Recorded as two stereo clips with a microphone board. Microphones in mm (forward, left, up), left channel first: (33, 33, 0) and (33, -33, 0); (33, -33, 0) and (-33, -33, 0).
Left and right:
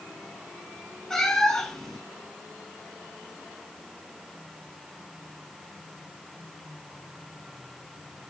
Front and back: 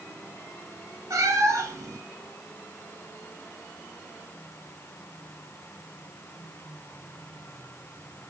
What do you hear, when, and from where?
1.1 s a cat meowing: 170° left, 0.7 m